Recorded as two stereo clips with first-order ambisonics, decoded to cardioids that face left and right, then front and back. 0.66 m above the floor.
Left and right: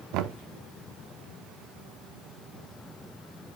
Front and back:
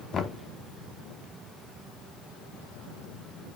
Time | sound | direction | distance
0.1 | knocking | 65° right | 0.7 m